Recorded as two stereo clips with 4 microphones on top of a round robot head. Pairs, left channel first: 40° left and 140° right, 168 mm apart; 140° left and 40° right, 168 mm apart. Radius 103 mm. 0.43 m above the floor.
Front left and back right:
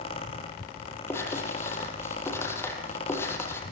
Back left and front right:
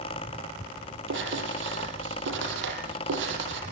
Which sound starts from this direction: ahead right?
Writing, at 1.1 s.